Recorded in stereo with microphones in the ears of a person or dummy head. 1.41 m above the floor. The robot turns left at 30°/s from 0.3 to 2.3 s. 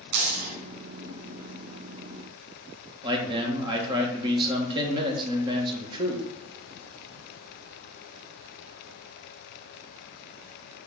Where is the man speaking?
30° right (ahead or behind), 1.6 m.